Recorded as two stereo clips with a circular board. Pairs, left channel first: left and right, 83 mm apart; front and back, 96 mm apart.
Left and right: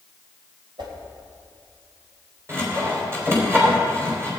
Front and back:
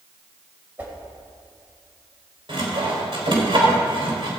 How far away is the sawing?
About 3.5 m.